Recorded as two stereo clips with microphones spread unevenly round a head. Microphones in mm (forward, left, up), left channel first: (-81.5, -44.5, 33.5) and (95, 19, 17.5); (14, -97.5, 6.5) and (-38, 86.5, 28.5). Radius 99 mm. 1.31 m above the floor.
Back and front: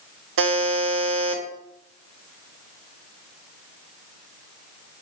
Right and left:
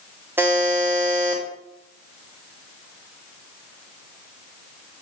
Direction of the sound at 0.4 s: 25° left.